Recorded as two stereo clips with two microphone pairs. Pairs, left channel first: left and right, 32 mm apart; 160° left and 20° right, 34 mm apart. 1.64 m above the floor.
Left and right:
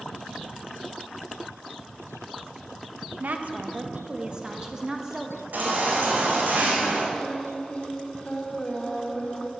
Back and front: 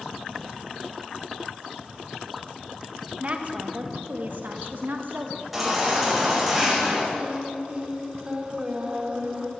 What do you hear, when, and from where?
3.2 s a woman speaking: 70° right, 1.5 m; by 5.4 s 15° right, 3 m
5.5 s a baby crying: 110° right, 5 m
7.1 s singing: 40° left, 3 m